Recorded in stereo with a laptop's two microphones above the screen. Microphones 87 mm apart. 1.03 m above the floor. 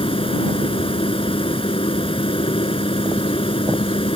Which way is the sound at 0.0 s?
75° left (ahead or behind).